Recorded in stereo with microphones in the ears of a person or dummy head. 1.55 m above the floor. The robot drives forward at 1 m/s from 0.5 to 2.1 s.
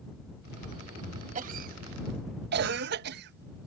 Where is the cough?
45° right (ahead or behind); by 3.7 s 65° right (ahead or behind).